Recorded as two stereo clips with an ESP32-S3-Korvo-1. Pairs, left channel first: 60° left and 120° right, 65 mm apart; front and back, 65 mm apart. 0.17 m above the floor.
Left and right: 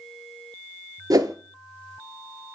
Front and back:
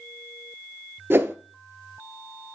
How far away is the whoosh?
About 0.6 m.